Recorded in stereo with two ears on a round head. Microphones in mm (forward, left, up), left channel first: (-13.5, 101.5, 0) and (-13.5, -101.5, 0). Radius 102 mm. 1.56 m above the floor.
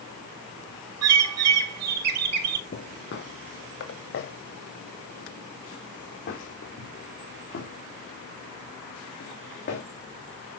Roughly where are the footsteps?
Left.